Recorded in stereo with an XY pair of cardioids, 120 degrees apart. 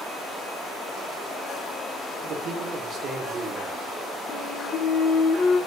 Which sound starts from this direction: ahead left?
A flute, at 4.3 s.